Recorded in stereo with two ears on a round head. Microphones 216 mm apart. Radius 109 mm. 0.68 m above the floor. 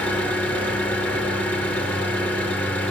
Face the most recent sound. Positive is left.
turn(degrees=5)  # may be behind; listen again after turning